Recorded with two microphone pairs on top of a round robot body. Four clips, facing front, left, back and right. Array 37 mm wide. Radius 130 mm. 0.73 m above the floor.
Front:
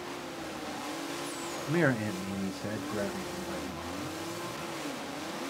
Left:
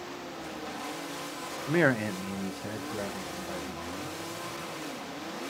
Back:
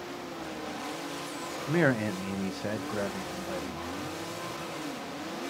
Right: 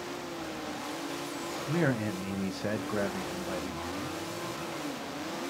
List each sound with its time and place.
1.7 s a man speaking: 95° left, 0.7 m; by 4.2 s 105° right, 1.6 m